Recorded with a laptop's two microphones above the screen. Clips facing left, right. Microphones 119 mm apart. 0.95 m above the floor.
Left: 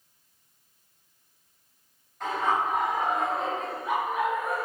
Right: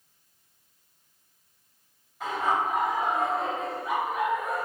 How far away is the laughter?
About 5.5 m.